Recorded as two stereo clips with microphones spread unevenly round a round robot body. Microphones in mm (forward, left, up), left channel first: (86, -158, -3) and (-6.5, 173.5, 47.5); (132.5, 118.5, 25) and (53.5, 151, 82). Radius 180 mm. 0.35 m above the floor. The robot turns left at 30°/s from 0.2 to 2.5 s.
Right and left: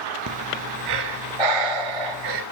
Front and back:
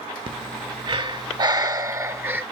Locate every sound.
0.3 s breathing: 155° left, 1.4 m; by 2.4 s 90° left, 1.4 m